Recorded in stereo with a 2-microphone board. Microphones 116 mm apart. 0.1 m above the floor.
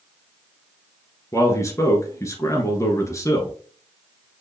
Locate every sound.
1.3 s a man speaking: 25° left (ahead or behind), 1.2 m